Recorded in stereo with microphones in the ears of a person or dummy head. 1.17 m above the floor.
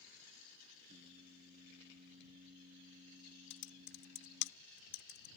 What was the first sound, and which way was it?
Singing, 40° right (ahead or behind).